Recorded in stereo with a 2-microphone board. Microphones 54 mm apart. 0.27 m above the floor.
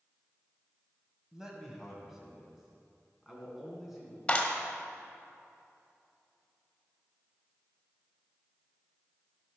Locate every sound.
1.3 s a man speaking: 10° right (ahead or behind), 1.9 m; by 4.2 s centre (ahead or behind), 3.5 m
4.3 s a clap: 20° left (ahead or behind), 1.3 m